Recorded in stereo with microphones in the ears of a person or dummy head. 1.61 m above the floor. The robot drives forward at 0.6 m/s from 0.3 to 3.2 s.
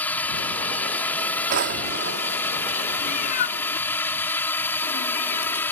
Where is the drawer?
50° right (ahead or behind); by 2.4 s 40° right (ahead or behind).